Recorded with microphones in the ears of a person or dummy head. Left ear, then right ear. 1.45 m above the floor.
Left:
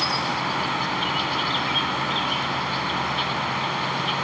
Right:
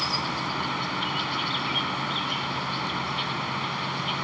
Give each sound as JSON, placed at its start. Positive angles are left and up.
{"t": 0.0, "sound": "an insect", "side_deg": 10}